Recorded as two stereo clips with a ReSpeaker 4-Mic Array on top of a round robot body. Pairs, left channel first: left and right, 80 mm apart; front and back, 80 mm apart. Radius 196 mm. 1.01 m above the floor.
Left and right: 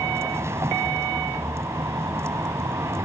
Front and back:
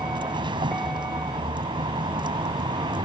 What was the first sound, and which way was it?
A vehicle, 150° right.